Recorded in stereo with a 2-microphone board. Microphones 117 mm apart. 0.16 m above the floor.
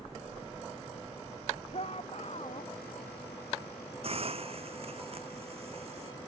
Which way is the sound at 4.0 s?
55° right (ahead or behind).